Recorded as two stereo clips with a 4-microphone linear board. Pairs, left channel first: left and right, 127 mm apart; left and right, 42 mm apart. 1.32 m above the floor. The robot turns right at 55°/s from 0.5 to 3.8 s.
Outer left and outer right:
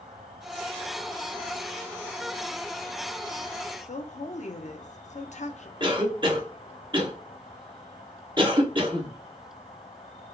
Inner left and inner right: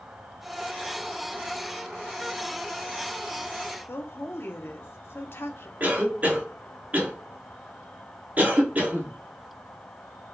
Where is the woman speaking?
70° left (ahead or behind), 0.6 m.